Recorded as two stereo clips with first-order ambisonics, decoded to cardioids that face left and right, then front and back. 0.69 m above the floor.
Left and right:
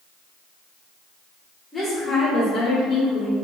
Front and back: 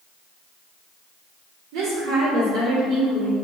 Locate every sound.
1.7 s a woman speaking: 175° left, 1.3 m; by 3.4 s 135° left, 1.6 m